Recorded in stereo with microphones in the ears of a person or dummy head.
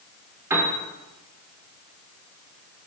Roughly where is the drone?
I don't hear a drone.